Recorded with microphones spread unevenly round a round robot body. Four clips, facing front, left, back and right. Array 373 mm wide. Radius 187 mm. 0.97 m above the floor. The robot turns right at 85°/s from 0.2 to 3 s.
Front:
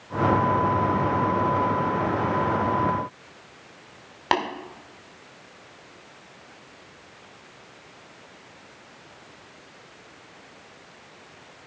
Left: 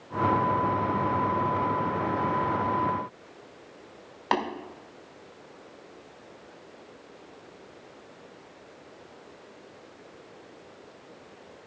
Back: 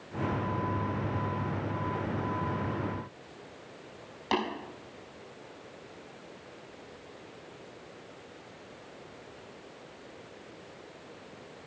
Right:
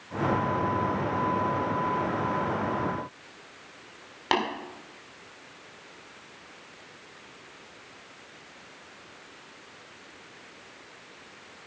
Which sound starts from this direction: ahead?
Tapping, at 4.3 s.